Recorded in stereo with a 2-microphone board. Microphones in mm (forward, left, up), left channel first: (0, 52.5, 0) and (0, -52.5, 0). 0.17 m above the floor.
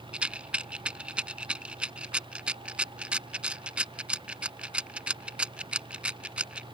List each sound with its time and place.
0.1 s a rattle: 10° right (ahead or behind)